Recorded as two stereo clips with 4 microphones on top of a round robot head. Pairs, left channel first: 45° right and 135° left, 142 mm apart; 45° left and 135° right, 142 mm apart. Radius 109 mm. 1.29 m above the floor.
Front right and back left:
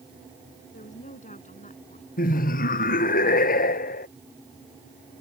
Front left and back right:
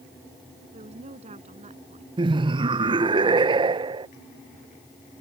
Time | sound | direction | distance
0.7 | a woman speaking | 85° right | ?
2.2 | laughter | 75° right | ?